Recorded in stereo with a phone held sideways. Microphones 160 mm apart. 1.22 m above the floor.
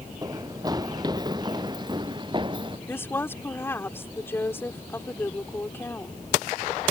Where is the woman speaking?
15° left (ahead or behind).